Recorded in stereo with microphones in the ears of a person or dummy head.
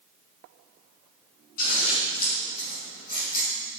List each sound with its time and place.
1.6 s scissors: 55° left (ahead or behind), 5.5 m